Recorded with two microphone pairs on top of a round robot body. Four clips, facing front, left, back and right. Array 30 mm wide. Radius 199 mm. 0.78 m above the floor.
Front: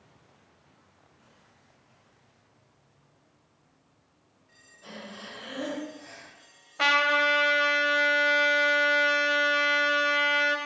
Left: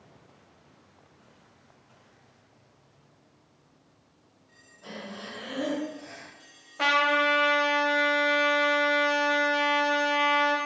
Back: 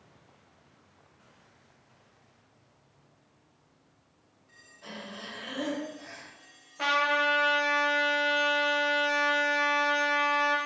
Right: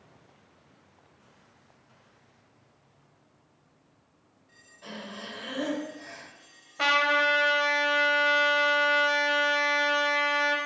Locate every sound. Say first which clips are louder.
4.8 s breathing: even, back 1 dB; 125° right, 2.5 m
6.8 s a trumpet: even, front 3 dB; 20° right, 1.0 m